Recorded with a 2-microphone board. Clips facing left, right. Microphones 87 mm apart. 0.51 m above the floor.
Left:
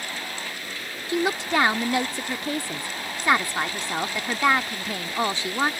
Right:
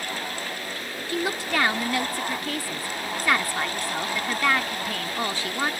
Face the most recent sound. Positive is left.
turn(degrees=25)  # may be behind; listen again after turning